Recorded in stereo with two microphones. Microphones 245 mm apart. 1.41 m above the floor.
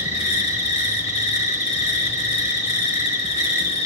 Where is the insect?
25° left (ahead or behind), 2 m.